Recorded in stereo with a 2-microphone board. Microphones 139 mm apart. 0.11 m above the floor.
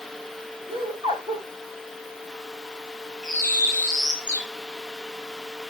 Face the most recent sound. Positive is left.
turn(degrees=-65)  # may be behind; listen again after turning